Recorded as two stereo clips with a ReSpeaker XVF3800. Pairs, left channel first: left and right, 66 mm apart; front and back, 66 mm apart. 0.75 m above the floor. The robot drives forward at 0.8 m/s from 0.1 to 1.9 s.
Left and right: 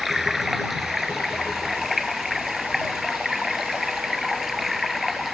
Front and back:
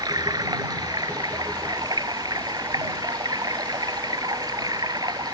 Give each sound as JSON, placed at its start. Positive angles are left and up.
{"t": 0.0, "sound": "running water", "azimuth_deg": -175}